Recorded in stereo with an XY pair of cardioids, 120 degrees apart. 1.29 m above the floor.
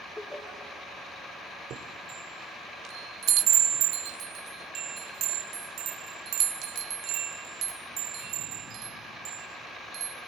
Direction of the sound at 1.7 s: 70° right.